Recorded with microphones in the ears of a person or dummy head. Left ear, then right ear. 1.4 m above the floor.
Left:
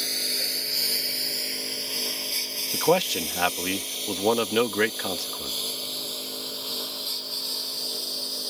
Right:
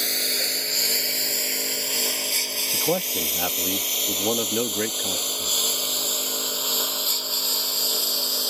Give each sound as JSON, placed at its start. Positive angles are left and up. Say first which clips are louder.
{"t": 0.0, "sound": "a lawn mower", "louder": "right 2 dB", "side_deg": -25}
{"t": 2.7, "sound": "a man speaking", "louder": "left 5 dB", "side_deg": 55}